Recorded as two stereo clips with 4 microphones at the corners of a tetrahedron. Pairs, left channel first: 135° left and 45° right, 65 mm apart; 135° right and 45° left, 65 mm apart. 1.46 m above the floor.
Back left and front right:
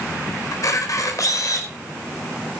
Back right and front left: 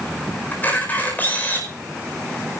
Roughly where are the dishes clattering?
I don't hear dishes clattering.